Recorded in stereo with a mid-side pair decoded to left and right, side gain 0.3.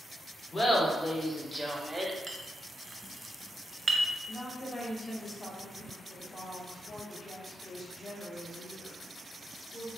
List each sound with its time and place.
0.5 s laughter: 35° left, 1.3 m; by 2.2 s 15° right, 1.0 m
2.3 s a clink: 30° right, 0.6 m
4.3 s a woman speaking: 35° left, 1.8 m